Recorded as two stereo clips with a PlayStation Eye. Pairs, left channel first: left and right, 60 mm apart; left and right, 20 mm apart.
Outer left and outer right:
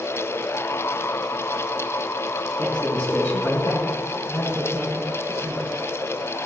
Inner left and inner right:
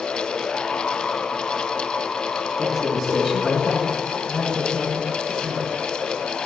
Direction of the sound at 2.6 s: 15° left (ahead or behind).